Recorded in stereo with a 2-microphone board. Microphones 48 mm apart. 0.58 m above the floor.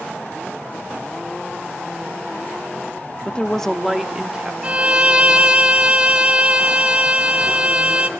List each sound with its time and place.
3.2 s a woman speaking: 25° left (ahead or behind), 1.0 m; by 4.5 s 15° right (ahead or behind), 1.5 m
4.6 s a violin: 20° right (ahead or behind), 1.8 m